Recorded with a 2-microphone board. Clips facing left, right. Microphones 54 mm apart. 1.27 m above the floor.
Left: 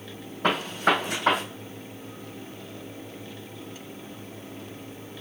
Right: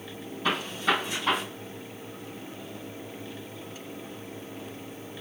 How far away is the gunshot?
About 3.5 m.